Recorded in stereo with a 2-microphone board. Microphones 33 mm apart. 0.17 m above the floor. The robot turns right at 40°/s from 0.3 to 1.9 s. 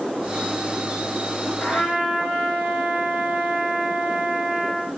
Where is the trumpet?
50° left (ahead or behind), 2 m.